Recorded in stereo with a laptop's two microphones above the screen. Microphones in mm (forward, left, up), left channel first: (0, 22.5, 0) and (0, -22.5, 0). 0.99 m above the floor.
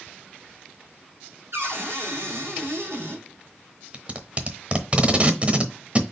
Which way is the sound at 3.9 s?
30° right (ahead or behind).